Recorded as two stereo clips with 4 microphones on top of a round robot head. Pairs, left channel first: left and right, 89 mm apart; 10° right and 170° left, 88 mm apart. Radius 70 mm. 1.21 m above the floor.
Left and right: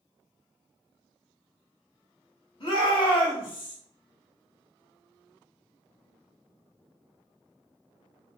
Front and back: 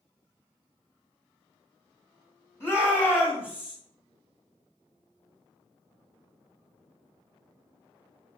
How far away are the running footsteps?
I don't hear running footsteps.